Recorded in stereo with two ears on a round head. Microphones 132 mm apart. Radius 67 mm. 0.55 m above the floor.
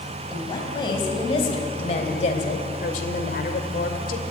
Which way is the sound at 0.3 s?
30° left (ahead or behind).